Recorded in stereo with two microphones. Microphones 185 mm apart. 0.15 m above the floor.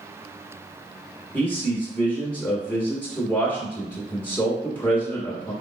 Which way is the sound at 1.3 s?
10° left (ahead or behind).